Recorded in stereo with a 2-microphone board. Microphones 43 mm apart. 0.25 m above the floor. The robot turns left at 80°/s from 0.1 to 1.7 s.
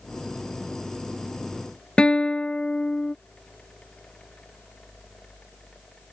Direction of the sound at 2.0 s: 25° left (ahead or behind).